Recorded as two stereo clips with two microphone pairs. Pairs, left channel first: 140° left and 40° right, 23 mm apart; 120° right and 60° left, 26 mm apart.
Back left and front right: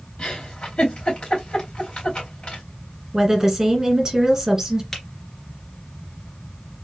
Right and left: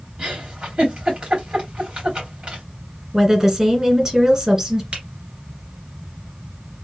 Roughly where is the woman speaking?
Ahead.